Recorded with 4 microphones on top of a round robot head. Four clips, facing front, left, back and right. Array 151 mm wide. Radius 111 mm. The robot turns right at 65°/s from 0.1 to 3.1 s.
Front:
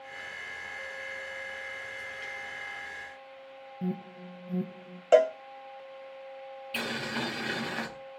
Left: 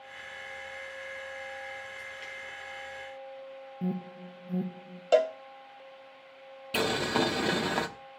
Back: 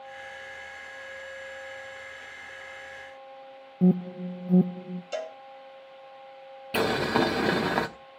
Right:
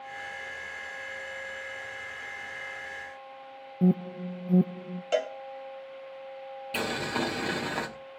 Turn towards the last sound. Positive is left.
turn(degrees=170)